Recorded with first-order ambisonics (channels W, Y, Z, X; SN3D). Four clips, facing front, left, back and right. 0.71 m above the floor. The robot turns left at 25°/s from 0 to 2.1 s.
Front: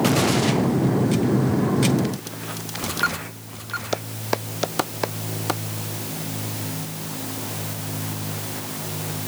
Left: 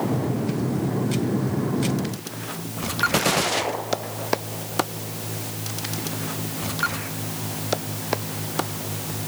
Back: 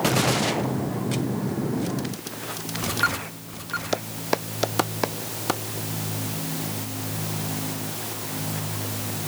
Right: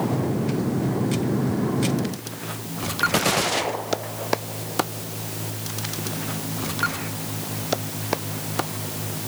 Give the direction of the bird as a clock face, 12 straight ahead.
I don't hear a bird.